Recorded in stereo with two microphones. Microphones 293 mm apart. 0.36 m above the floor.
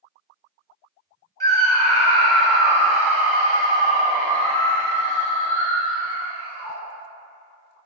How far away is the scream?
About 0.9 m.